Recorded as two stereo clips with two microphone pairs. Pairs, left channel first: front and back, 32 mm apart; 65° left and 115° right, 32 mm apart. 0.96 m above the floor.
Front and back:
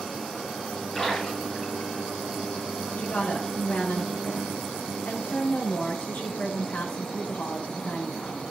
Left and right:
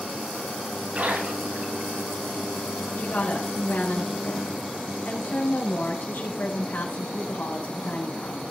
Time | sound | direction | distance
0.9 | a splash | 75° right | 7 m
3.0 | a woman speaking | 30° left | 5 m